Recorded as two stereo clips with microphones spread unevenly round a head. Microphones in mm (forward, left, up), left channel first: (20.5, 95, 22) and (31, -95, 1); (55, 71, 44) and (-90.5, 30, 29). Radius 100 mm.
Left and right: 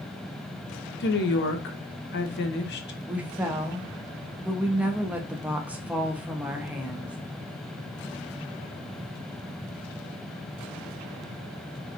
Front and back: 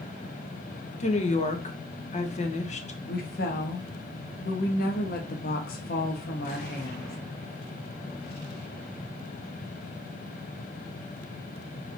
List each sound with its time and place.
1.0 s a woman speaking: 60° left, 1.1 m
3.1 s a woman speaking: 10° right, 0.9 m